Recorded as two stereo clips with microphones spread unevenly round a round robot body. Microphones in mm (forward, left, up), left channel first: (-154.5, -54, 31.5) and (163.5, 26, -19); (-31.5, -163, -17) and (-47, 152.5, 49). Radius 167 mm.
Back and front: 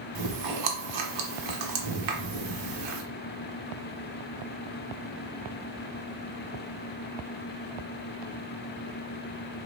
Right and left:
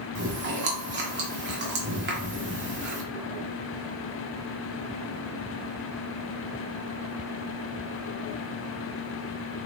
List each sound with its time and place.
0.1 s chewing: 30° left, 1.2 m